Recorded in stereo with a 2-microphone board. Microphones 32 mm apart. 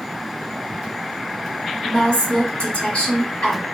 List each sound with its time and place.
1.8 s a woman speaking: 45° left (ahead or behind), 1.3 m